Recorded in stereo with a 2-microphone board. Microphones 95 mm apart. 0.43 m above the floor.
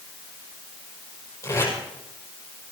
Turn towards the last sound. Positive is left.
turn(degrees=35)  # may be behind; listen again after turning